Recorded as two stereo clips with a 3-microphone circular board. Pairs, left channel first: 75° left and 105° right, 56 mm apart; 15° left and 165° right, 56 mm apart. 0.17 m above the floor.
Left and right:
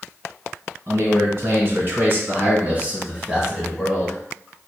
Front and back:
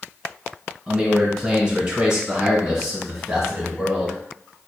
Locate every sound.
0.9 s a man speaking: 85° right, 1.8 m; by 4.2 s 135° left, 1.2 m